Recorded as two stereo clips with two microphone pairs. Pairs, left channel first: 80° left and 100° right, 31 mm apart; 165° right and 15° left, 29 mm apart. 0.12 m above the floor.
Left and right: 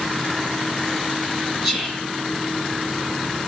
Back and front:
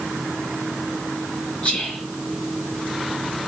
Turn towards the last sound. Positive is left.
turn(degrees=180)